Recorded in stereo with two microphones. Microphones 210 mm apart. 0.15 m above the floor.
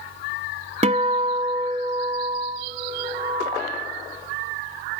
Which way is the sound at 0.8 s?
30° right (ahead or behind).